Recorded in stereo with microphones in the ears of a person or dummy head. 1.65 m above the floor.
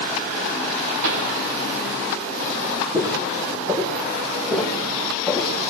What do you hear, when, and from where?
1.0 s a pop: 80° right, 4 m
2.9 s footsteps: 20° right (ahead or behind), 4.5 m; by 5.5 s 5° right (ahead or behind), 4.5 m